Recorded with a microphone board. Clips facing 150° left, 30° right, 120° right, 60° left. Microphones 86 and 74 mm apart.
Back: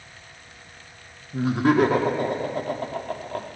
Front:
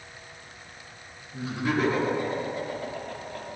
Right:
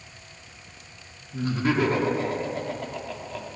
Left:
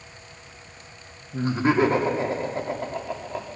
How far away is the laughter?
About 1.7 m.